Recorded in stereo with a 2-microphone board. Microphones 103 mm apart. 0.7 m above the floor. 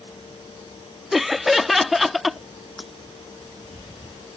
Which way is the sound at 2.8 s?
Centre (ahead or behind).